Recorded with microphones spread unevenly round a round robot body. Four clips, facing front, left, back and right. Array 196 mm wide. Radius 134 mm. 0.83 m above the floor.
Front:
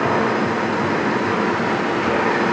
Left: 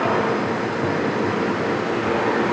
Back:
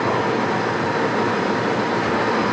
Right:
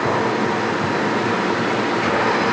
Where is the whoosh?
No whoosh in this recording.